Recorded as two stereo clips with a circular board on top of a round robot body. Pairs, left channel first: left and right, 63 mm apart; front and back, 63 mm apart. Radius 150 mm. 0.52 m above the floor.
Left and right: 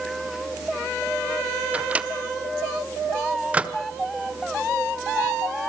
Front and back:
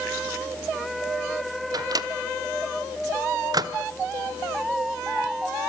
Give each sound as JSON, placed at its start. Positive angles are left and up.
{"t": 1.7, "sound": "a microwave", "azimuth_deg": -160, "distance_m": 1.7}